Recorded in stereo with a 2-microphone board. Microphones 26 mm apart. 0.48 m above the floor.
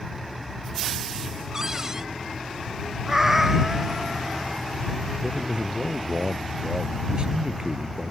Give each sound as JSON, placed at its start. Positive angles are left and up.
{"t": 1.5, "sound": "a cupboard door", "side_deg": -25}
{"t": 3.1, "sound": "a cat meowing", "side_deg": -20}
{"t": 5.2, "sound": "a man speaking", "side_deg": -40}